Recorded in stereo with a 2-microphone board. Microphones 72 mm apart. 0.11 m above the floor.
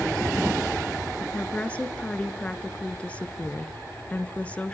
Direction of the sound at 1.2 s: 15° left (ahead or behind).